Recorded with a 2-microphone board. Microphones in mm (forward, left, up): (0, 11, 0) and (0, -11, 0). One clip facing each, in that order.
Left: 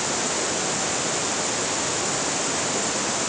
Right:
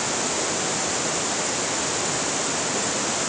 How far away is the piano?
I don't hear a piano.